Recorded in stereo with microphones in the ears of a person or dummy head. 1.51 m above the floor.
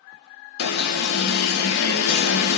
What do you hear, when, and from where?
0.6 s an alarm: 50° left (ahead or behind), 0.5 m